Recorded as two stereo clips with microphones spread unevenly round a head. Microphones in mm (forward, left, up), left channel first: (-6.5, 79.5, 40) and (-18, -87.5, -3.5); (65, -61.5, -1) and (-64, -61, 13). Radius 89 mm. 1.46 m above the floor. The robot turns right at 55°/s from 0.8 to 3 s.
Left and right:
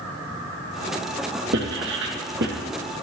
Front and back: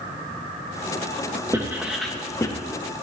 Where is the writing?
115° right, 3 m; by 2.5 s 60° right, 3 m.